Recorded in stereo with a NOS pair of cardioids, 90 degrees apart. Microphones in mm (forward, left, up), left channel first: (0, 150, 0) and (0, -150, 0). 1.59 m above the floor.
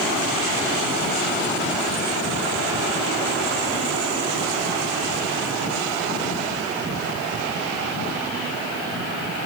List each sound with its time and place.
Only background noise.